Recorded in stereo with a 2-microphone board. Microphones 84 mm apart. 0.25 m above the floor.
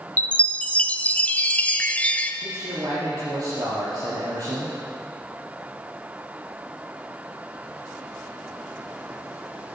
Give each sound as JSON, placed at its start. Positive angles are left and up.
{"t": 0.2, "sound": "a chime", "side_deg": 20, "distance_m": 0.6}
{"t": 2.4, "sound": "a man speaking", "side_deg": -50, "distance_m": 3.5}